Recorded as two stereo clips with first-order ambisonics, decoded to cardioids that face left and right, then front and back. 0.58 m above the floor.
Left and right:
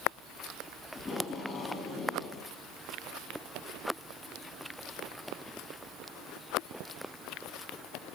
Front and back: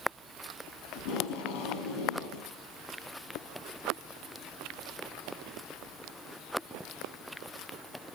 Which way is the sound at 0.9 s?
15° left.